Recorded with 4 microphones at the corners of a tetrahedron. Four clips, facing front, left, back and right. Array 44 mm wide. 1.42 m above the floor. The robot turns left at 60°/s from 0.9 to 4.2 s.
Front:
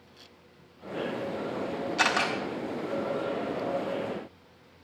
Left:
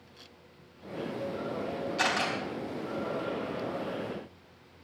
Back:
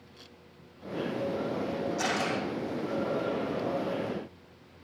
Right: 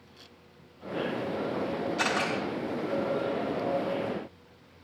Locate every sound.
2.0 s a camera shutter: 10° left, 4.5 m; by 2.3 s 10° right, 4.5 m